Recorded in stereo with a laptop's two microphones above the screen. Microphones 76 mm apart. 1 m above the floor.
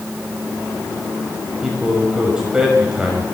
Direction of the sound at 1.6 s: 10° right (ahead or behind).